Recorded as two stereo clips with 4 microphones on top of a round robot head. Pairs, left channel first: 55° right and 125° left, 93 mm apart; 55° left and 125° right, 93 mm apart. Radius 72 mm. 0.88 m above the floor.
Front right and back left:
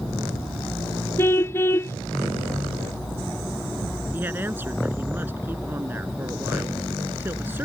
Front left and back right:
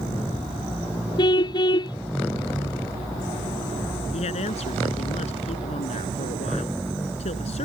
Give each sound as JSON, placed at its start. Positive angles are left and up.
{"t": 1.2, "sound": "a car horn", "azimuth_deg": 10}
{"t": 4.1, "sound": "a woman speaking", "azimuth_deg": 55}